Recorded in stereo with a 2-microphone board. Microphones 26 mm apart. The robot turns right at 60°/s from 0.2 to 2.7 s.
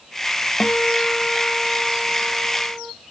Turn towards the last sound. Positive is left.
turn(degrees=-125)